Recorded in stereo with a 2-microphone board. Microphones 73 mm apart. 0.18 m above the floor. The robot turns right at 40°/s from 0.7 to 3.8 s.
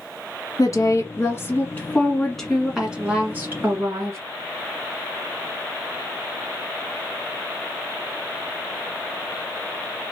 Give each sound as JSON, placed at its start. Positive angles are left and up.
{"t": 0.6, "sound": "a woman speaking", "azimuth_deg": 105, "distance_m": 1.7}